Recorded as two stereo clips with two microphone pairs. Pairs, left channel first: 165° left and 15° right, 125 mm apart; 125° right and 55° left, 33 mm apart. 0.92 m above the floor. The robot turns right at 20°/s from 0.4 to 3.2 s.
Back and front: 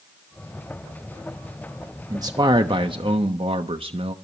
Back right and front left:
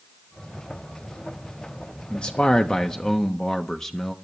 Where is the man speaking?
75° right, 1.0 m; by 4.2 s 50° right, 1.0 m.